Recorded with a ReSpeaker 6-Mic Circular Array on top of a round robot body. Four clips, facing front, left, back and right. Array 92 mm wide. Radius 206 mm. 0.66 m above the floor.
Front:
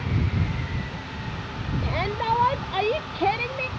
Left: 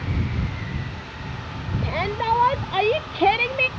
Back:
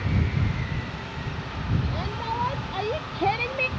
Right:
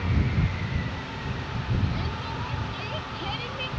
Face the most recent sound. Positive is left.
turn(degrees=105)